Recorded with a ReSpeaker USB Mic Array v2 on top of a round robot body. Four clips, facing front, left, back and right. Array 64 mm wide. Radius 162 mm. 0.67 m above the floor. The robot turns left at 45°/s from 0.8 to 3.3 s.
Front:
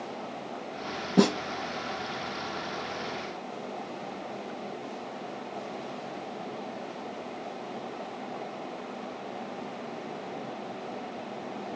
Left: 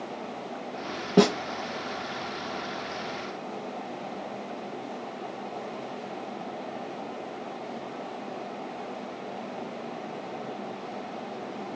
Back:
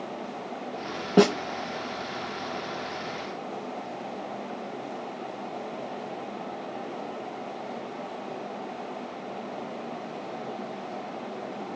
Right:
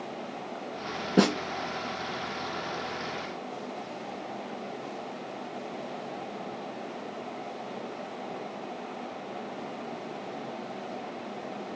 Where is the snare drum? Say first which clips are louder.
Left 3 dB, back 4 dB; 160° left, 0.5 m; by 1.4 s 150° left, 0.5 m.